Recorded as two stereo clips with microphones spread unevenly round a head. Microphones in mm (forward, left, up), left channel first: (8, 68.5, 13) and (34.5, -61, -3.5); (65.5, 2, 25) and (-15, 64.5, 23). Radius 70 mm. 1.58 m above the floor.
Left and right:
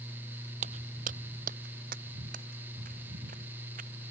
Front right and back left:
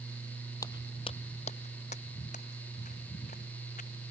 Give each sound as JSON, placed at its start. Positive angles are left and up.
{"t": 0.6, "sound": "footsteps", "azimuth_deg": -95}